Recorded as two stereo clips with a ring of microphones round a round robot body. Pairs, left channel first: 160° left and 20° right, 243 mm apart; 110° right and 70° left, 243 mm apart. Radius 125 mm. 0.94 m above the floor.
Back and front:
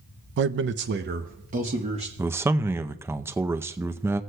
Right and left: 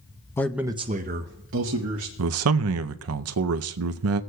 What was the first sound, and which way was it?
A man speaking, 35° right.